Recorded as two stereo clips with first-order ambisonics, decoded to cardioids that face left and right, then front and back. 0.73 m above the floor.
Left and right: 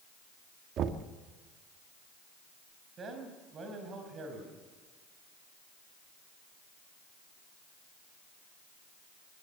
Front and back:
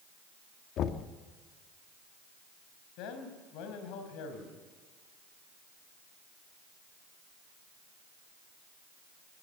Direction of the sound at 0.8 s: 45° right.